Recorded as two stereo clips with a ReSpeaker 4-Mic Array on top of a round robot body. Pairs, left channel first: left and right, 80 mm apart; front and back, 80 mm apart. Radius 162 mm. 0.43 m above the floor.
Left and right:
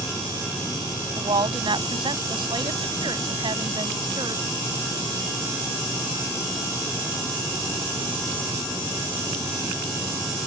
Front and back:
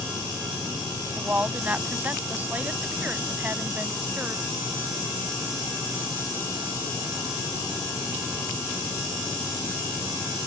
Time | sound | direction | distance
1.1 | a woman speaking | 110° right | ?